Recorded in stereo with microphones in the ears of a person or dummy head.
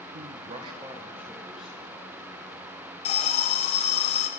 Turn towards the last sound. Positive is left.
turn(degrees=35)  # may be behind; listen again after turning